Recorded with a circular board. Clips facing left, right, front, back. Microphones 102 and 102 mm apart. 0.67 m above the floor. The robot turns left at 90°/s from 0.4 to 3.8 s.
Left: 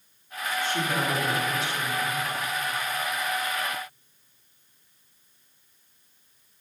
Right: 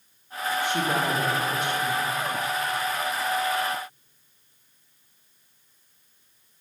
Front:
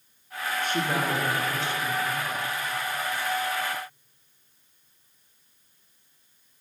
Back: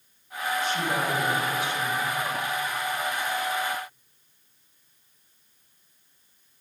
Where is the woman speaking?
15° right, 1.4 m; by 2.2 s 160° right, 1.4 m.